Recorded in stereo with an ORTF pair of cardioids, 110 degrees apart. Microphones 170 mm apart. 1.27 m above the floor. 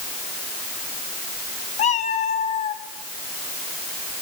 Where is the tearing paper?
No tearing paper in this recording.